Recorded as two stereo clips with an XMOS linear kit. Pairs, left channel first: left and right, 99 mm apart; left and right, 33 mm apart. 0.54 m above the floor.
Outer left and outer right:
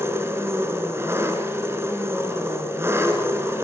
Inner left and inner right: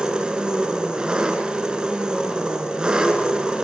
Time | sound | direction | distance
0.0 | an engine running | 25° right (ahead or behind) | 3 m